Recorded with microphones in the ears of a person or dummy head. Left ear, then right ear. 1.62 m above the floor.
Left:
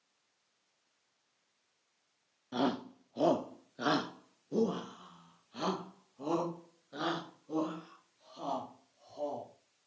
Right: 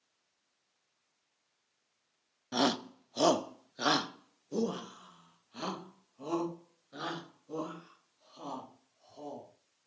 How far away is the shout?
About 0.9 m.